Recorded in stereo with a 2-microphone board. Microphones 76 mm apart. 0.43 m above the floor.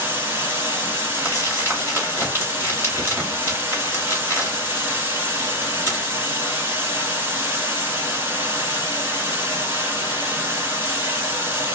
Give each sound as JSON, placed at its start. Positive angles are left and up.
{"t": 0.0, "sound": "running water", "side_deg": -30, "distance_m": 1.1}
{"t": 1.1, "sound": "crumpling", "side_deg": -30, "distance_m": 1.6}